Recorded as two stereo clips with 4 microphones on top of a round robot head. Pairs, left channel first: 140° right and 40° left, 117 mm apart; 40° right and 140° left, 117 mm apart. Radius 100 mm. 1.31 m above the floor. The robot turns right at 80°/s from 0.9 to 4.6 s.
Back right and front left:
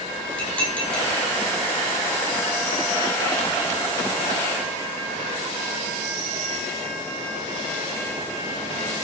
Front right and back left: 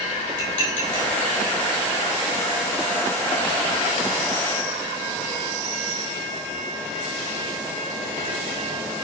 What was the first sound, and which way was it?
Dishes clattering, 60° right.